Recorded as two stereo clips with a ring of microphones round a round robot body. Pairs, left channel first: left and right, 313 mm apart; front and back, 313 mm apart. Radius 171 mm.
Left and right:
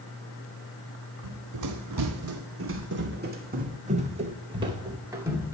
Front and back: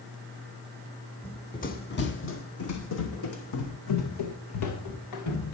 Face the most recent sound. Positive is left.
turn(degrees=-5)